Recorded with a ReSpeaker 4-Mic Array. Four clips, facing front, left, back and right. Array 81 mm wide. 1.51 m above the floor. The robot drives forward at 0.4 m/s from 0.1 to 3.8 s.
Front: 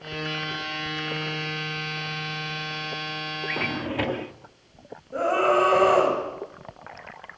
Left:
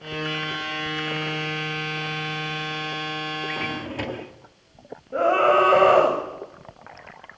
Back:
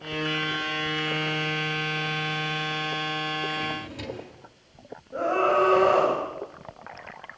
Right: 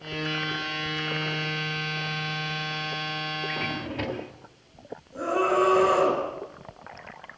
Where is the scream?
80° left, 8 m.